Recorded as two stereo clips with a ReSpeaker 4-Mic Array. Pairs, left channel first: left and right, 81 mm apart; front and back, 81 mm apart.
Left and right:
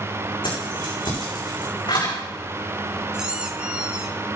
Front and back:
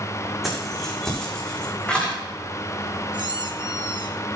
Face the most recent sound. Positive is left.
turn(degrees=-170)